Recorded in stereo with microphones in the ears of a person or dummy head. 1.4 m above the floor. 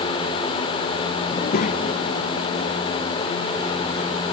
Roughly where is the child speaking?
Left.